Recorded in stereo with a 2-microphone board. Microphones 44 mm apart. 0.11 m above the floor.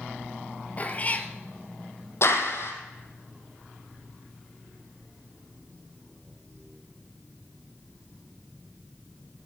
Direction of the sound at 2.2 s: 70° left (ahead or behind).